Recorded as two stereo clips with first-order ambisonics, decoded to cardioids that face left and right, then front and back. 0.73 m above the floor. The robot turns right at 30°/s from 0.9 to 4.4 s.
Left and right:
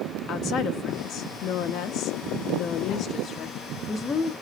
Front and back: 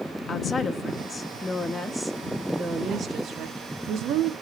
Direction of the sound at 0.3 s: 60° left.